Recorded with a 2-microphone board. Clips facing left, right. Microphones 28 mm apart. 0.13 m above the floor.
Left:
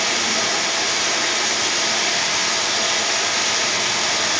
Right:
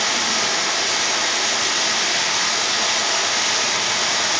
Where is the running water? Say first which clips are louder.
Even; 55° right (ahead or behind), 0.9 m.